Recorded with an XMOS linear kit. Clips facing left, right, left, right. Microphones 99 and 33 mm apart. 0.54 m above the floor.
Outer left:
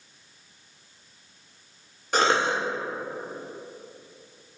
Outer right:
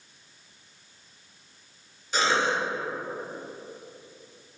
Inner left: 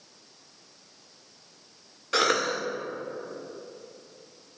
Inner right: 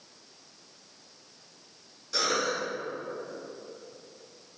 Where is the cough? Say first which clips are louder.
Outer left 2 dB, inner left 4 dB; 55° left (ahead or behind), 1.1 m.